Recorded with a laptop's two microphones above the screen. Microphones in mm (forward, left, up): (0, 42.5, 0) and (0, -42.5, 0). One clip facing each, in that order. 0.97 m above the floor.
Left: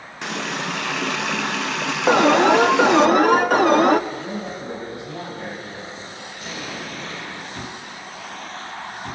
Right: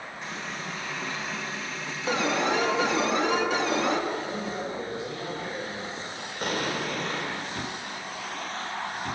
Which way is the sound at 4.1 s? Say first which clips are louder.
Left 2 dB; 60° left (ahead or behind).